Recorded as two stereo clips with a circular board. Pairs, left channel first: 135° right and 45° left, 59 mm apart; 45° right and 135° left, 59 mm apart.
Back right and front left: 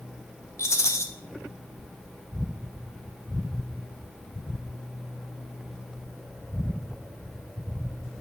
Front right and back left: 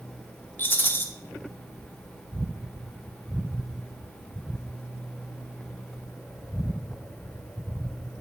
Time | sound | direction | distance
0.6 | a rattle | 100° right | 0.6 m